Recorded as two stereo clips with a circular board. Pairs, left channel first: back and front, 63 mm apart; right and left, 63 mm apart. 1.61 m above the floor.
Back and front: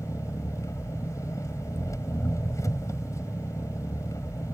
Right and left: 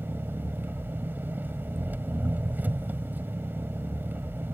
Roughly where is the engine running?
Behind left.